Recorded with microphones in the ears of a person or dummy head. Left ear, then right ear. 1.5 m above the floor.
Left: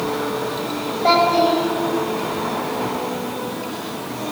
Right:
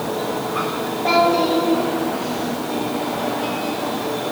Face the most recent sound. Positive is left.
turn(degrees=75)  # may be behind; listen again after turning